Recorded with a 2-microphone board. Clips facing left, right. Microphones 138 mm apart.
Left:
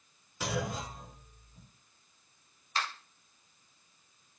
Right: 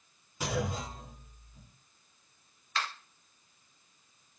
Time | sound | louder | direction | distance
0.4 | a clunk | right 1 dB | 15° right (ahead or behind) | 1.8 m
2.8 | a finger snap | even | 35° left (ahead or behind) | 1.2 m